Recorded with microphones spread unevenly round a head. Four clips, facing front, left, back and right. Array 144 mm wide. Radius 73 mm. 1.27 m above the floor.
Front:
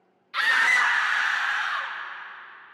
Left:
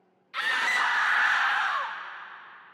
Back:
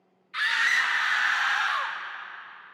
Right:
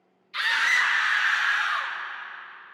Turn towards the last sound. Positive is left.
turn(degrees=120)